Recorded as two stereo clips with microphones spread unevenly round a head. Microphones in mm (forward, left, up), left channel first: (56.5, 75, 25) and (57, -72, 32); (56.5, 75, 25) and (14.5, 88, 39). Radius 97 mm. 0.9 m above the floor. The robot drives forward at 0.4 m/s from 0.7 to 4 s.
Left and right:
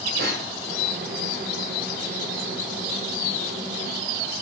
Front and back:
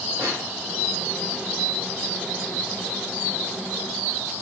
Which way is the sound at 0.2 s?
130° right.